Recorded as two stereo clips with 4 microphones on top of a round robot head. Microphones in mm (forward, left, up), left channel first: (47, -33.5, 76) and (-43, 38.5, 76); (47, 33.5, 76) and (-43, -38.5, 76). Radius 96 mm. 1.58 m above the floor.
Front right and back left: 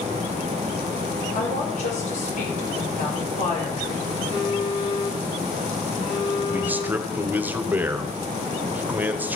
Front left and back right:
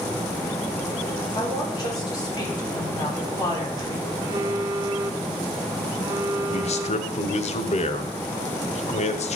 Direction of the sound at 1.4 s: 20° right.